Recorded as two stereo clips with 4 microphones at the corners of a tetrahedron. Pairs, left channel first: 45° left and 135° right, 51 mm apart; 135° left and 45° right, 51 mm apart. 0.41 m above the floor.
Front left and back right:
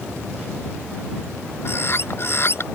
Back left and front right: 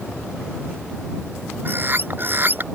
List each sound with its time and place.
1.6 s a bird: 5° left